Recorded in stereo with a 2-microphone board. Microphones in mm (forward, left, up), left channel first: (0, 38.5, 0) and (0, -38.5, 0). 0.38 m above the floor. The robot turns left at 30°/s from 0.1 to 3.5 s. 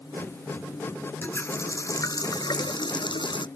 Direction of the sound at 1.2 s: 155° left.